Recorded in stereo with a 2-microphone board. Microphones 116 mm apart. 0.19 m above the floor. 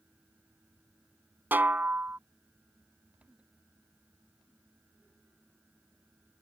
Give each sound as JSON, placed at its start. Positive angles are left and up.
{"t": 1.5, "sound": "a snare drum", "side_deg": -15}